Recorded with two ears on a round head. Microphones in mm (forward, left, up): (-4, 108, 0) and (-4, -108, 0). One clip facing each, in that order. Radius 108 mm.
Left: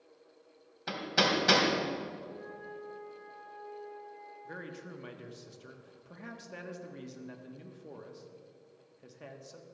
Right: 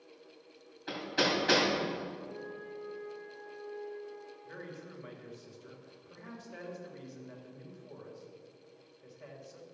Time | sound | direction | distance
0.9 | hammering | 65° left (ahead or behind) | 3 m
2.2 | a flute | 10° left (ahead or behind) | 4.5 m
4.5 | a man speaking | 55° left (ahead or behind) | 1.5 m